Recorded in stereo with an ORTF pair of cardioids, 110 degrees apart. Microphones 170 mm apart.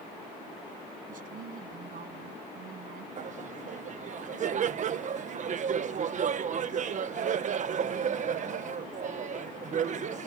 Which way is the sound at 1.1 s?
55° right.